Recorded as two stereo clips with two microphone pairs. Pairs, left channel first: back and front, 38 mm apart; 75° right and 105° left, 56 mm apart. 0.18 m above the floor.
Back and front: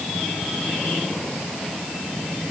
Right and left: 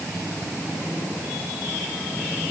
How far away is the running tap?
No running tap in this recording.